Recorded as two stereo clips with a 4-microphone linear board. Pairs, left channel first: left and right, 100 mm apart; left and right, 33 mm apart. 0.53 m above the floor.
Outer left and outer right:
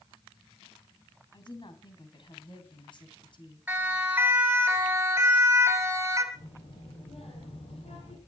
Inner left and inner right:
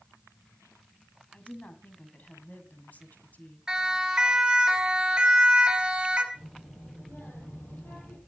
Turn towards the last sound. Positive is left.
turn(degrees=80)